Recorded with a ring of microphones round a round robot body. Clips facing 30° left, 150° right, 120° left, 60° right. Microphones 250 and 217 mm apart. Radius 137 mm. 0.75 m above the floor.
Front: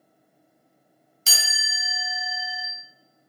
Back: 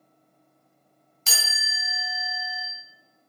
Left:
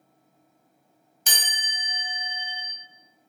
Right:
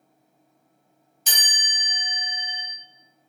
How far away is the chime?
About 2 m.